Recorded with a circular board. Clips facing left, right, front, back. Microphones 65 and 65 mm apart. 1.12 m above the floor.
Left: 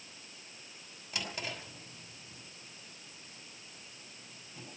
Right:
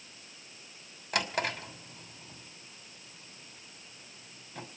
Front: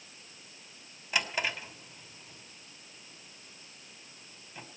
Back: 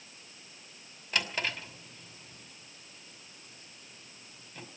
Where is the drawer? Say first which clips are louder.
Right 9 dB, front 1 dB; 80° right, 2.5 m.